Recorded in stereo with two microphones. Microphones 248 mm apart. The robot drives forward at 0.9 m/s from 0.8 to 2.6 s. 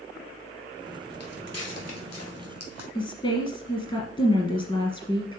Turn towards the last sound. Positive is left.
turn(degrees=20)  # may be behind; listen again after turning